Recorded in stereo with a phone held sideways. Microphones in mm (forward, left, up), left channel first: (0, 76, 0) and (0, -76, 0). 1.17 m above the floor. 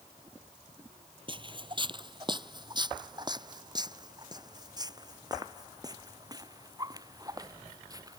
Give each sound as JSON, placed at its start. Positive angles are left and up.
{"t": 1.3, "sound": "footsteps", "side_deg": -35}